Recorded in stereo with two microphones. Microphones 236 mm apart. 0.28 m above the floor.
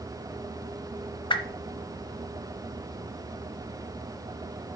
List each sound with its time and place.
1.3 s a whoosh: 20° left (ahead or behind), 0.9 m